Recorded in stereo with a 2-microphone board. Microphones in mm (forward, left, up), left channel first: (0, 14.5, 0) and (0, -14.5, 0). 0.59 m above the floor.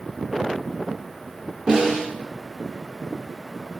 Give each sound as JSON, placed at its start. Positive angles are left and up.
{"t": 1.7, "sound": "a snare drum", "side_deg": -30, "distance_m": 0.9}